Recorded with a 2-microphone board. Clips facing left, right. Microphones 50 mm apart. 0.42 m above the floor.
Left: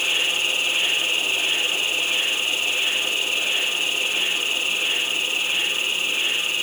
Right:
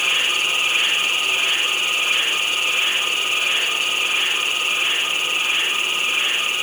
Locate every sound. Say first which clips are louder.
0.0 s an insect: right 3 dB; 75° right (ahead or behind), 1.6 m